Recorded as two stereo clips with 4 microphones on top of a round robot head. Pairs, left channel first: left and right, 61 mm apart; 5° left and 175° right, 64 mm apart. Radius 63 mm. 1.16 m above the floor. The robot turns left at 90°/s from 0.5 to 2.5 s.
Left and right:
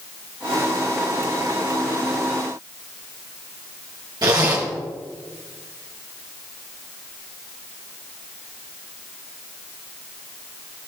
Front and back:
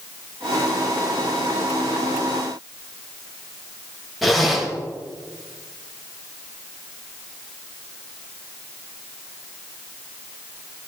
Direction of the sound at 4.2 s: 85° right.